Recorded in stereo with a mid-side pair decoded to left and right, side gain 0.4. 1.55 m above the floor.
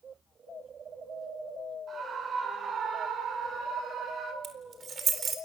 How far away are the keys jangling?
About 4 m.